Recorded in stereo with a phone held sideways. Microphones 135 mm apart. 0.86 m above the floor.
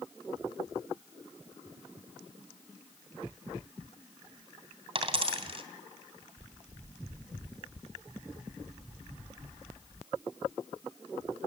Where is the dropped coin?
45° right (ahead or behind), 2.5 m.